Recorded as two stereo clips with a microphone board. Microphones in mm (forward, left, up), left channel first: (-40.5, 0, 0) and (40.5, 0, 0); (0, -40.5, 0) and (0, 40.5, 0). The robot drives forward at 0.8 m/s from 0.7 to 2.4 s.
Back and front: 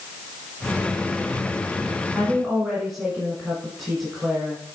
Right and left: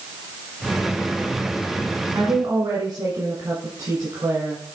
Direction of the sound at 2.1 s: 85° left.